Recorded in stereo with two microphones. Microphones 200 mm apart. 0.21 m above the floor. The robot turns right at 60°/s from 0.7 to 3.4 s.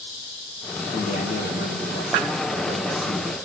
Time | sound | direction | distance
0.9 | a man speaking | 30° left | 4.5 m